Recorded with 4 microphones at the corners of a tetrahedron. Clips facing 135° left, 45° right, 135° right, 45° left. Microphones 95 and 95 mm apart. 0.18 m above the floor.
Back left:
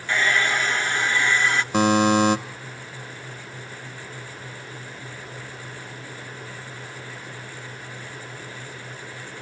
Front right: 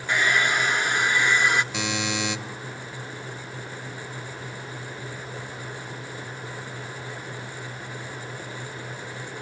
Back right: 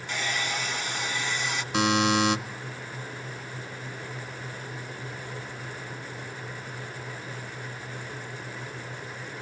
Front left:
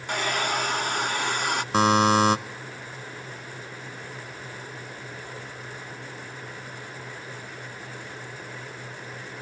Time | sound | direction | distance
0.1 | a hair dryer | 25° left | 0.7 m
1.7 | a buzzer | 95° left | 0.7 m